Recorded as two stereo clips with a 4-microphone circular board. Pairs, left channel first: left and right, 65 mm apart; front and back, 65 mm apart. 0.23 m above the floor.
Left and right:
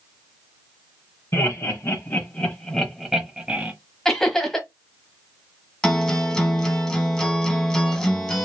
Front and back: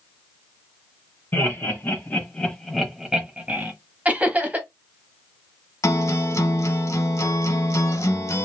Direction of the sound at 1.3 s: 50° left.